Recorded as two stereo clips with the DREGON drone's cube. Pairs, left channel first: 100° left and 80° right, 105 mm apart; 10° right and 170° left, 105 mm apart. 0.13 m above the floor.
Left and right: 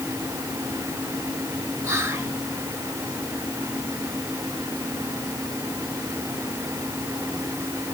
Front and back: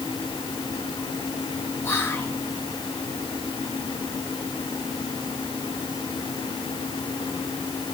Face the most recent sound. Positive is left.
turn(degrees=-50)